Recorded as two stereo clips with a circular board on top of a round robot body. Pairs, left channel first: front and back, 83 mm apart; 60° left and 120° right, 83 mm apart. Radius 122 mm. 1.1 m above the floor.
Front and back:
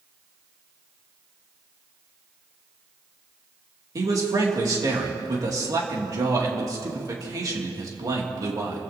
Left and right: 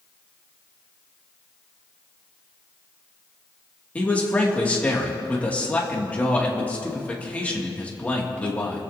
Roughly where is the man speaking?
Behind left.